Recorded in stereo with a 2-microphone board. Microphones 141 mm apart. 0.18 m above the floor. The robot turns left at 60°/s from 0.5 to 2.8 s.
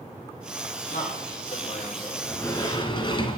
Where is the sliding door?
160° left, 1.0 m; by 3.4 s 125° left, 1.0 m.